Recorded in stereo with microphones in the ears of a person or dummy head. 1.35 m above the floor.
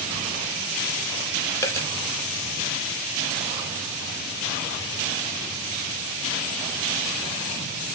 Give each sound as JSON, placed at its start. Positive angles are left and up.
{"t": 1.6, "sound": "a dropped coin", "side_deg": 15, "distance_m": 1.9}